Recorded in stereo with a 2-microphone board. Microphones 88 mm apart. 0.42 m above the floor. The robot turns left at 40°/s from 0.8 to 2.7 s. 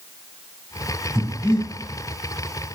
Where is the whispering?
I don't hear whispering.